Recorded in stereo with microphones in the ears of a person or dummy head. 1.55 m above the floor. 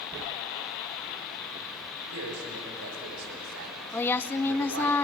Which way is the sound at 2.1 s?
85° right.